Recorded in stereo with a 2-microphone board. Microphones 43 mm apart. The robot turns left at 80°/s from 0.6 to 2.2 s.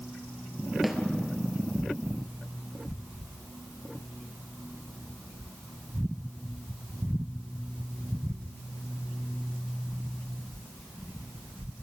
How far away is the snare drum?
About 1.6 m.